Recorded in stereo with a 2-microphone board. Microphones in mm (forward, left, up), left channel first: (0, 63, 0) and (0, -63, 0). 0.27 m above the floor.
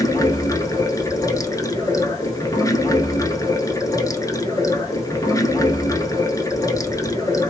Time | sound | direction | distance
0.0 | running water | 25° left (ahead or behind) | 0.7 m